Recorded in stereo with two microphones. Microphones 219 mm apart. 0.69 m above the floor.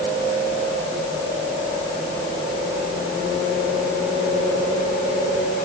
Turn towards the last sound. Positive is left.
No sound to turn to.